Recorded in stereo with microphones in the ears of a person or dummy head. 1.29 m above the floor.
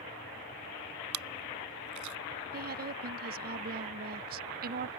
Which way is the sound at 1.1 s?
85° right.